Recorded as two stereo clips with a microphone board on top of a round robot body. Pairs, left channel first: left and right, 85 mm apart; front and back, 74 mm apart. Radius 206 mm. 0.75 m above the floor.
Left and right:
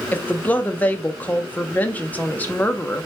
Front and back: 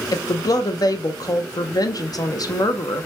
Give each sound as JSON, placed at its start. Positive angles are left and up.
{"t": 0.1, "sound": "a woman speaking", "azimuth_deg": 20, "distance_m": 0.9}